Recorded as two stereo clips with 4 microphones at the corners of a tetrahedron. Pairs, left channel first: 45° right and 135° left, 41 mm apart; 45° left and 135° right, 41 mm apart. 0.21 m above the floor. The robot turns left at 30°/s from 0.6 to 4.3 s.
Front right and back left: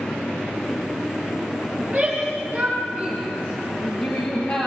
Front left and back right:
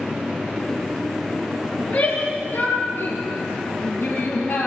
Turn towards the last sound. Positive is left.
turn(degrees=-10)